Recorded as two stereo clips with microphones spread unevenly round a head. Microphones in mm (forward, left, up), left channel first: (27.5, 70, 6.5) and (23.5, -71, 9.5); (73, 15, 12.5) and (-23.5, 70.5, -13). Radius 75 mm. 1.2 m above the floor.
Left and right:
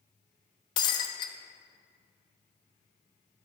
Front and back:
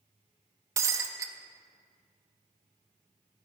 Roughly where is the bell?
No bell in this recording.